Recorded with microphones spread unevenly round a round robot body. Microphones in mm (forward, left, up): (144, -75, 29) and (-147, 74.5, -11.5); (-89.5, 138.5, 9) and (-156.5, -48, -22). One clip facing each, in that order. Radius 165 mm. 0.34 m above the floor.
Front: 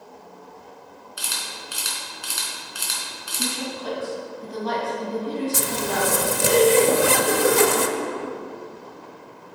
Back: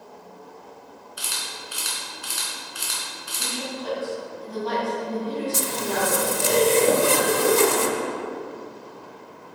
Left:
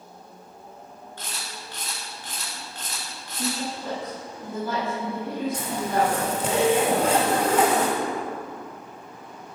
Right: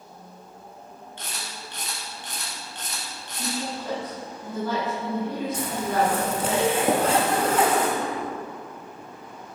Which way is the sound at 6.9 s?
115° right.